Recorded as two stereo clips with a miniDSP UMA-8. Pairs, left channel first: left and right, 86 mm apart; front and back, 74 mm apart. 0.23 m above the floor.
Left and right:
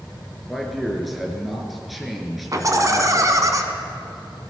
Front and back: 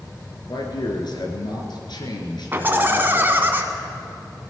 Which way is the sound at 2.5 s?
125° right.